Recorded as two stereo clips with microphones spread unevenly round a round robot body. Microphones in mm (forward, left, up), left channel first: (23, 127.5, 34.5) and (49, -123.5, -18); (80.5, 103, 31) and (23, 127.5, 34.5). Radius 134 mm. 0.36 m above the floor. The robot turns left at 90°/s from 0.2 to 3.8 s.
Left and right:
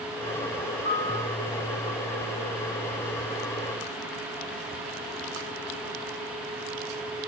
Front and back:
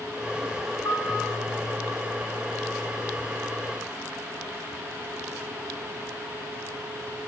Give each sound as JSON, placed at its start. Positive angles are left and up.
{"t": 0.8, "sound": "a piano", "azimuth_deg": -15, "distance_m": 5.0}